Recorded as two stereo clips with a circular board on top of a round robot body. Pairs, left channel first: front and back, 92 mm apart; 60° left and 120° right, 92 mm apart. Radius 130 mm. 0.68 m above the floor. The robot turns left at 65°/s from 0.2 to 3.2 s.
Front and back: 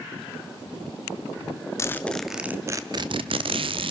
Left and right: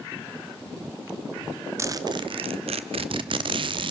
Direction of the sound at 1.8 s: 60° right.